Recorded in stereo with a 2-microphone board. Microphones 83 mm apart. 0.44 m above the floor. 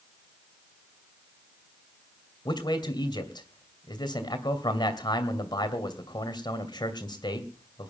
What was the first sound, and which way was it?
A man speaking, 60° left (ahead or behind).